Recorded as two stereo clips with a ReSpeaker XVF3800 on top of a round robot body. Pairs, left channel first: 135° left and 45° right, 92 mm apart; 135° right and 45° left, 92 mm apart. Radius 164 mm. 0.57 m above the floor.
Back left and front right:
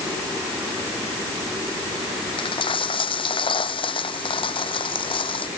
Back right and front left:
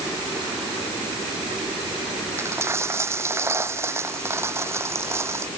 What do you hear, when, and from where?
2.4 s a dropped coin: 110° left